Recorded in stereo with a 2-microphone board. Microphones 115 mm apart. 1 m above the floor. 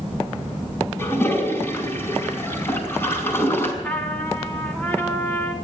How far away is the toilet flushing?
About 5 m.